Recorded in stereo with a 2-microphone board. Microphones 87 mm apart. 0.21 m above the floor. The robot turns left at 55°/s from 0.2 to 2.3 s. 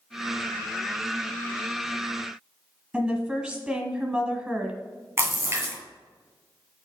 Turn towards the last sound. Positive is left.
turn(degrees=-35)  # may be behind; listen again after turning